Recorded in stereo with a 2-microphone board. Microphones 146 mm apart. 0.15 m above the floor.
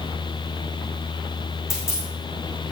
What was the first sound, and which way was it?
A dropped coin, 20° left (ahead or behind).